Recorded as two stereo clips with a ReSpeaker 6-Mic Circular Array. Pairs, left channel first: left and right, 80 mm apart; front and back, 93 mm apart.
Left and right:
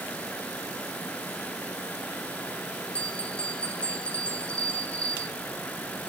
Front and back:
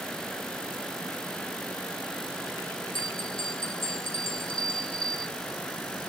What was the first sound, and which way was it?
A bell, 15° left.